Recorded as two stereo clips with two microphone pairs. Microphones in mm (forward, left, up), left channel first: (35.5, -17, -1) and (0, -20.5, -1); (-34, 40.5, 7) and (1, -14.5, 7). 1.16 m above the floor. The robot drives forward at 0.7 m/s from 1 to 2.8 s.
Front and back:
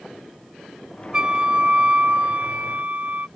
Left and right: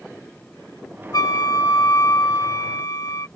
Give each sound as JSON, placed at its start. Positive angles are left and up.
{"t": 1.1, "sound": "a flute", "azimuth_deg": 125}